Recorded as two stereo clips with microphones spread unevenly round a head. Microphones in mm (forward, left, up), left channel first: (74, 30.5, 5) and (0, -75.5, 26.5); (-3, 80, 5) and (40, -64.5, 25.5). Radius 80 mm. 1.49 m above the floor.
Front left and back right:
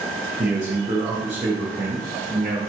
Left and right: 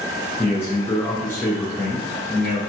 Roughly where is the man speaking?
Behind.